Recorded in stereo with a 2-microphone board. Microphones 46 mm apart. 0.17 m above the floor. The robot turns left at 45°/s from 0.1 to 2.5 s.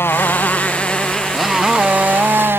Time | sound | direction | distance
0.0 | a motorcycle | 60° left | ?